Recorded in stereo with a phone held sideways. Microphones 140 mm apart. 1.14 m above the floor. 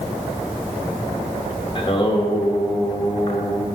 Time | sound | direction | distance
1.8 | singing | 35° left (ahead or behind) | 0.9 m